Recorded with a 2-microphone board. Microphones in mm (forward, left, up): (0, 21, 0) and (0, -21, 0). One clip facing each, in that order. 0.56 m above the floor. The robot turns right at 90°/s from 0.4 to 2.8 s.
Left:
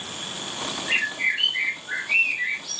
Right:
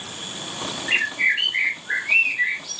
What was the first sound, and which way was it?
A bird, 165° right.